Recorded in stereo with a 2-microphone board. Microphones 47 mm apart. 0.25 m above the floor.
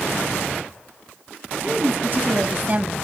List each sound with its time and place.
1.6 s a woman speaking: 50° right (ahead or behind), 1.8 m; by 3.0 s 35° right (ahead or behind), 1.1 m